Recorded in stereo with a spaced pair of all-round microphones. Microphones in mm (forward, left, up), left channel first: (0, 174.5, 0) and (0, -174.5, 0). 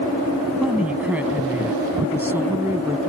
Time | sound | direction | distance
0.6 | a woman speaking | 5° right (ahead or behind) | ?